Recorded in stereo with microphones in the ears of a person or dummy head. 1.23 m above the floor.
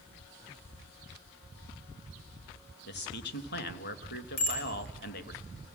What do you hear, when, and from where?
2.9 s a man speaking: 60° left (ahead or behind), 1.2 m
4.4 s a bicycle bell: 45° left (ahead or behind), 4.5 m